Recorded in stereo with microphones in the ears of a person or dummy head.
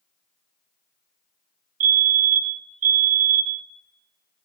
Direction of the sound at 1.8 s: 45° right (ahead or behind).